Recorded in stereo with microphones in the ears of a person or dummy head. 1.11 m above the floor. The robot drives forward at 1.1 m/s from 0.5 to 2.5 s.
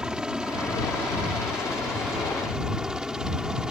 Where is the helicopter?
Centre (ahead or behind).